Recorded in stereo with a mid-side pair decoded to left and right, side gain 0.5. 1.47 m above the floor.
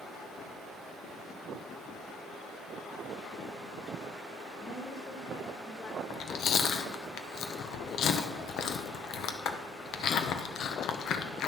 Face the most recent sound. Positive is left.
turn(degrees=65)